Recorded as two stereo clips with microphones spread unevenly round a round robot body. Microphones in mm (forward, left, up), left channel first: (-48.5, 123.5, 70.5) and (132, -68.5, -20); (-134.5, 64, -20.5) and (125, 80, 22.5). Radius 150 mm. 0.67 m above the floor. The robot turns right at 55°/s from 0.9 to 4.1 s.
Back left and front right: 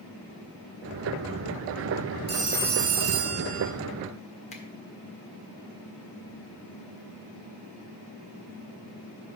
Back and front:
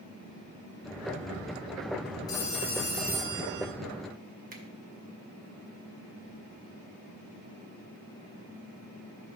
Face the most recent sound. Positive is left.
turn(degrees=65)